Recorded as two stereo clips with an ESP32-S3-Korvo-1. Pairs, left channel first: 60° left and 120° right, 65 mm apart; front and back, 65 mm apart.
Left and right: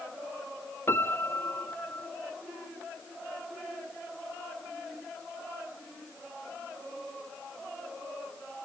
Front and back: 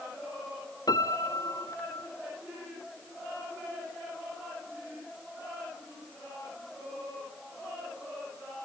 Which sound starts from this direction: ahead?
A piano, at 0.9 s.